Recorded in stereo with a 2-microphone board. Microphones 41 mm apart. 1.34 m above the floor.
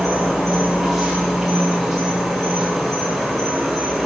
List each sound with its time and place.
0.0 s an insect: centre (ahead or behind), 3 m